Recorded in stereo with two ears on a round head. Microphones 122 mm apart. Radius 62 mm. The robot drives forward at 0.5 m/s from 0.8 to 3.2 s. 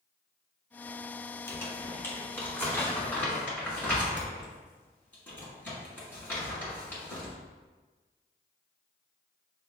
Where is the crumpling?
25° left (ahead or behind), 1.3 m; by 7.3 s 15° left (ahead or behind), 2 m.